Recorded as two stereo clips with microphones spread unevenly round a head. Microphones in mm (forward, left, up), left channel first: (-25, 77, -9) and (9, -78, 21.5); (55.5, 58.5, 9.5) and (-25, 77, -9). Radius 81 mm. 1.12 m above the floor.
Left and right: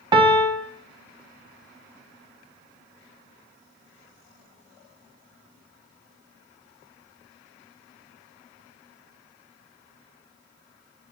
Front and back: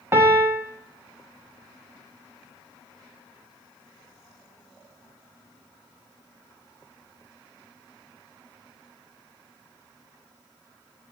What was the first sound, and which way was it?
A piano, 145° right.